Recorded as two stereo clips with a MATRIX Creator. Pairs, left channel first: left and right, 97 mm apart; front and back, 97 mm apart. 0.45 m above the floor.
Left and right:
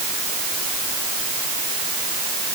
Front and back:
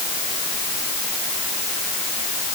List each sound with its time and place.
Only background noise.